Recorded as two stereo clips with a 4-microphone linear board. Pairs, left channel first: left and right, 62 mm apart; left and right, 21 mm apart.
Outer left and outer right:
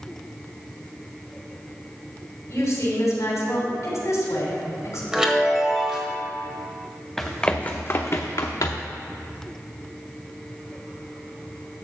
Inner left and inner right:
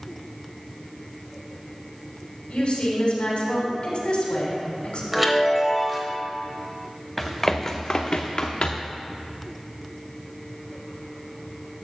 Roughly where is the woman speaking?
Left.